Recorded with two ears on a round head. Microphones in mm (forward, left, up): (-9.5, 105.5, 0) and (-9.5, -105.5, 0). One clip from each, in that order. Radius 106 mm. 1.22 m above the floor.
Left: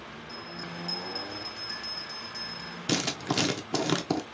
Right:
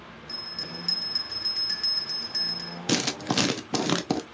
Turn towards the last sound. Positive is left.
turn(degrees=-15)  # may be behind; listen again after turning